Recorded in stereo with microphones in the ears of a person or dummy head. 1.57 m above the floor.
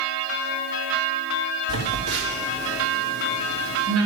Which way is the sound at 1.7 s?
75° right (ahead or behind).